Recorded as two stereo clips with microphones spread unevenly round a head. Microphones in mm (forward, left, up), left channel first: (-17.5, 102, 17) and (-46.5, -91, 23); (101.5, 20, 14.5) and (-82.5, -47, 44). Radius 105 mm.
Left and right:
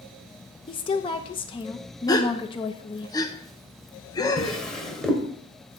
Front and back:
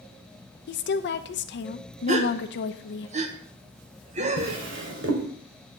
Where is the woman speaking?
20° left, 0.7 m.